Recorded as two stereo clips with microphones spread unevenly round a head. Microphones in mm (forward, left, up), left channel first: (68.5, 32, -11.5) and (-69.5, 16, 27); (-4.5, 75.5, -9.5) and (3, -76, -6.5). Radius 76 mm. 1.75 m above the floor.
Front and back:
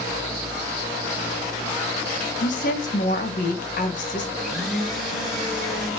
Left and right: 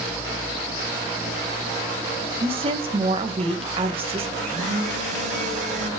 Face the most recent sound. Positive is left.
turn(degrees=-100)